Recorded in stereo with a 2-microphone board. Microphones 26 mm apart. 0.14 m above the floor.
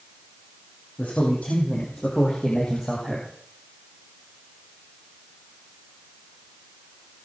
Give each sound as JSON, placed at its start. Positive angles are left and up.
{"t": 1.0, "sound": "a man speaking", "side_deg": 55, "distance_m": 5.5}